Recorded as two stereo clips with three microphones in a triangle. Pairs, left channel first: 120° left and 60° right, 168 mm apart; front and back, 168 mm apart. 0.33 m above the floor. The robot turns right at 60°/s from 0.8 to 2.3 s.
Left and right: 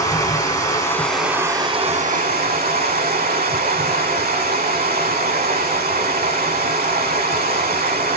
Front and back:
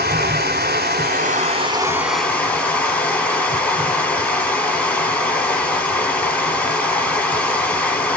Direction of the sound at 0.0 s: 170° right.